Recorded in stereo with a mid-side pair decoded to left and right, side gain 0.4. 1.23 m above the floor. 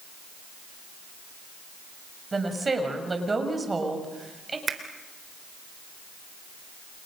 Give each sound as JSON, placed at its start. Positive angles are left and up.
{"t": 2.3, "sound": "a woman speaking", "azimuth_deg": -30, "distance_m": 6.0}
{"t": 4.7, "sound": "a finger snap", "azimuth_deg": -50, "distance_m": 3.5}